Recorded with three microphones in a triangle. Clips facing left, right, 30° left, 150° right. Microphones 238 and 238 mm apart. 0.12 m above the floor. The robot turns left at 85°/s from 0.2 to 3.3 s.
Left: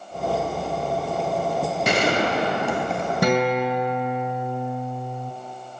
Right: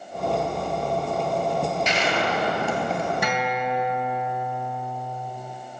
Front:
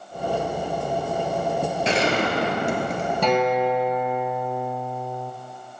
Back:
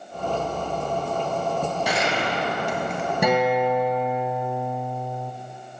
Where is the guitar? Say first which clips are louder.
Left 6 dB, even; 135° left, 0.7 m; by 5.3 s 130° left, 0.7 m.